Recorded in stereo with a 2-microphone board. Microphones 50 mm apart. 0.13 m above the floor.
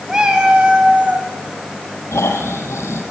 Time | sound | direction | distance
0.1 | a cat meowing | 15° right (ahead or behind) | 6 m
2.1 | snoring | 65° left (ahead or behind) | 5 m